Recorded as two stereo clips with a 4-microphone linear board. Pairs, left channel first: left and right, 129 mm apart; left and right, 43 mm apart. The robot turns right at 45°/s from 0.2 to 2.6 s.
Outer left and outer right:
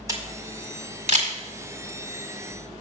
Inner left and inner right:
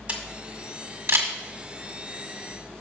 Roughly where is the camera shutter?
Right.